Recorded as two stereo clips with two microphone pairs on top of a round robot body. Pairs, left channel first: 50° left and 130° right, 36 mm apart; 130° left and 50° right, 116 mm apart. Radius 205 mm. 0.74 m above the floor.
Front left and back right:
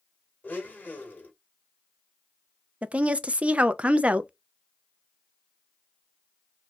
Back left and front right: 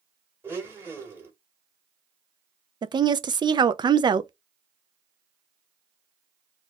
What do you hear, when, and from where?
0.4 s a blender: 20° left, 2.0 m
2.8 s a woman speaking: 85° right, 0.5 m